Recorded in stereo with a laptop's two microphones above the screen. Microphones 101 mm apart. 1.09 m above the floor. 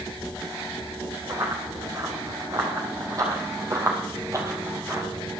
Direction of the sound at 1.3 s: 35° right (ahead or behind).